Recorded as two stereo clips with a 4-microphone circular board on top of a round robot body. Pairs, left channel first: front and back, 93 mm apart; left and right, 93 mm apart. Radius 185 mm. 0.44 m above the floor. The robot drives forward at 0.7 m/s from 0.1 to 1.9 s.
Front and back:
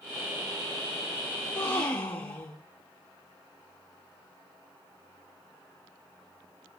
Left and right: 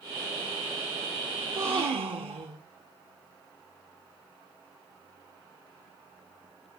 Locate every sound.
1.4 s a gasp: 70° right, 3 m; by 2.7 s 75° right, 3 m